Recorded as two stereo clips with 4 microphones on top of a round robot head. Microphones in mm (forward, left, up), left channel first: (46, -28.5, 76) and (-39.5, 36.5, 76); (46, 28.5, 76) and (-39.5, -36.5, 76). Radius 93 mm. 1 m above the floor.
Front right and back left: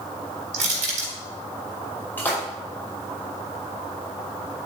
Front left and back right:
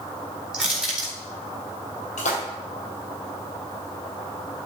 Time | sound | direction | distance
0.5 | crushing | 130° left | 3 m
2.2 | a splash | 35° left | 2 m